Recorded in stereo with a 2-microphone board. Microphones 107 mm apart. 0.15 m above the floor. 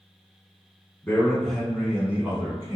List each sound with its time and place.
1.0 s a man speaking: 15° left (ahead or behind), 1.2 m; by 2.8 s 30° right (ahead or behind), 1.3 m